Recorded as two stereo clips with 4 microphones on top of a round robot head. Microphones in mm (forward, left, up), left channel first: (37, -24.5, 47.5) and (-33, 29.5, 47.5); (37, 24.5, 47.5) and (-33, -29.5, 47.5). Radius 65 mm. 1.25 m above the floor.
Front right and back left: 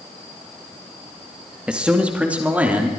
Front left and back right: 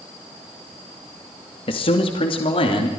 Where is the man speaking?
65° left, 2 m; by 2.9 s 70° left, 3 m.